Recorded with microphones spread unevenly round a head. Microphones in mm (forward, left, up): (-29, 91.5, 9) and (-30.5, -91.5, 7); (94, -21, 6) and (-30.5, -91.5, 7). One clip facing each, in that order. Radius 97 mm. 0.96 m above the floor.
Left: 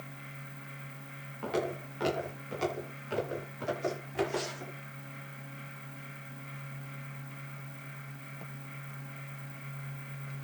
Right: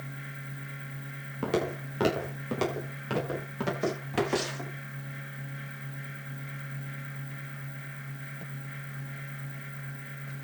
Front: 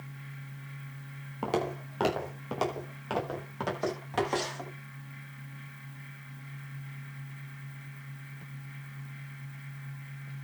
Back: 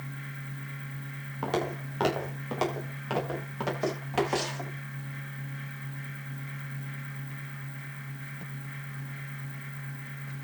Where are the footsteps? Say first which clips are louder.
Right 4 dB, even; 50° right, 6.5 m; by 4.7 s 70° right, 10 m.